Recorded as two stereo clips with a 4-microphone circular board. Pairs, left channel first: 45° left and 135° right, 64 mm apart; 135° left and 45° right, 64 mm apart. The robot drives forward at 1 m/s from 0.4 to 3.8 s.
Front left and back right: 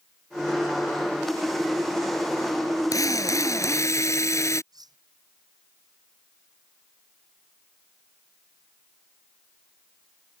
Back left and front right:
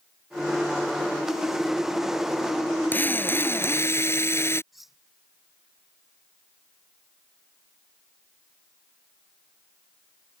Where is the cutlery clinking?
135° right.